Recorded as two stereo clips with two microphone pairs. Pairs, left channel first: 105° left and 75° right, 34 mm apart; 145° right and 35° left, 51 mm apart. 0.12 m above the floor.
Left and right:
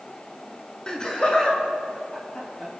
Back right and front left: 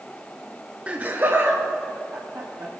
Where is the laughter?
65° left, 1.2 m; by 2.7 s 50° left, 3.5 m.